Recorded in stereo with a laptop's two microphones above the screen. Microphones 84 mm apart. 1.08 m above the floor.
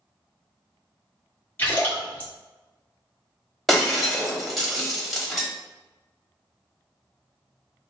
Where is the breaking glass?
Centre (ahead or behind), 0.9 m.